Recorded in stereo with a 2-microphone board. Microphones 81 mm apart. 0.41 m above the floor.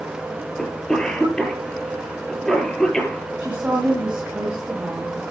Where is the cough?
5° left (ahead or behind), 7 m.